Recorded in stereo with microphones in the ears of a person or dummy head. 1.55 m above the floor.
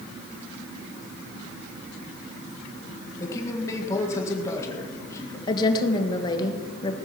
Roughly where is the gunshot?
I don't hear a gunshot.